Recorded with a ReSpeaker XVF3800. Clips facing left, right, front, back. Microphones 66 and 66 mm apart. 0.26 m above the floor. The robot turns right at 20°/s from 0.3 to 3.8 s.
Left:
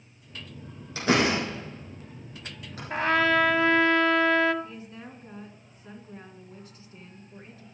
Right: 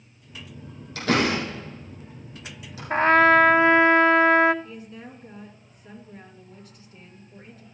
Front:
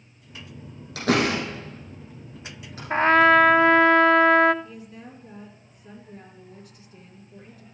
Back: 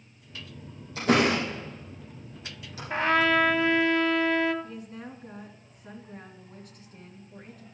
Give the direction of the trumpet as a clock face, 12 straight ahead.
2 o'clock.